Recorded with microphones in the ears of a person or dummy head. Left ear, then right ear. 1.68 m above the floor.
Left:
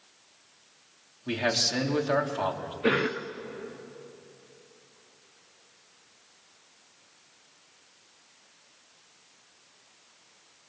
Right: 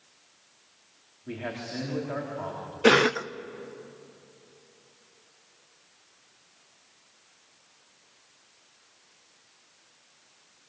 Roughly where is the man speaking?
Left.